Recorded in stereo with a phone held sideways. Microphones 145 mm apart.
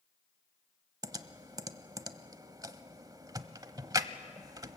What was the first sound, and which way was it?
Typing on a keyboard, 25° right (ahead or behind).